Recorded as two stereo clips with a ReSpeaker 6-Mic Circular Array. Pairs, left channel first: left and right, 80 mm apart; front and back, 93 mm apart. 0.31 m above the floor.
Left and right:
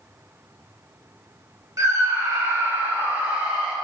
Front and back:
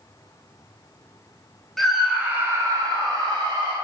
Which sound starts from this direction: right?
A scream, at 1.8 s.